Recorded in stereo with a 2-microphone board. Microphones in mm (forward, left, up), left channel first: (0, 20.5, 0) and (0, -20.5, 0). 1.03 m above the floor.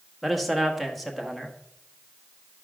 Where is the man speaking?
Centre (ahead or behind), 1.6 m.